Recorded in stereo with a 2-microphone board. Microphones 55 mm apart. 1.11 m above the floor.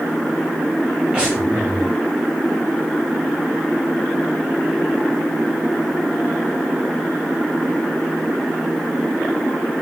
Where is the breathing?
15° right (ahead or behind), 7 m.